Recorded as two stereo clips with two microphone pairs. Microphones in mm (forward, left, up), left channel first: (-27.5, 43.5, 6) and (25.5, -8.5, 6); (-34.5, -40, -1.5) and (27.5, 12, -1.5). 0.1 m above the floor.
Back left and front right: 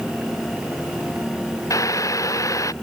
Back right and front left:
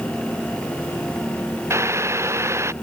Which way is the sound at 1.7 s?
95° left.